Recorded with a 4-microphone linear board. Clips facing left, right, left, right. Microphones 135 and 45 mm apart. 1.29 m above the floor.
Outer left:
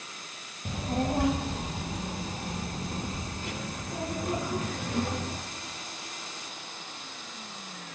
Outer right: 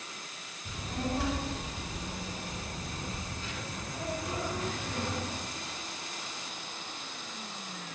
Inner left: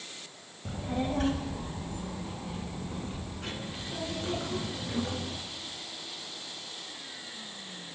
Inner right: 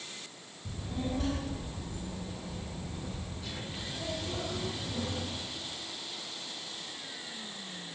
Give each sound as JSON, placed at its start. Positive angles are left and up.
{"t": 0.7, "sound": "a child speaking", "side_deg": 55, "distance_m": 3.5}